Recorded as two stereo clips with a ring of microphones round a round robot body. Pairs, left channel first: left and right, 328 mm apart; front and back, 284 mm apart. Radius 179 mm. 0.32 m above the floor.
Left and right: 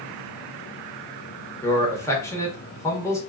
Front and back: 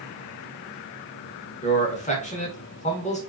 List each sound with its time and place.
1.6 s a man speaking: 20° left, 0.9 m